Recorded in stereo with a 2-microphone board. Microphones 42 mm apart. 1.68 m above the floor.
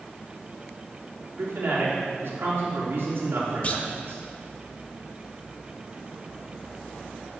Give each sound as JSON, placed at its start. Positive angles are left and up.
{"t": 1.4, "sound": "a man speaking", "side_deg": -75, "distance_m": 3.5}
{"t": 3.6, "sound": "a clunk", "side_deg": 35, "distance_m": 0.9}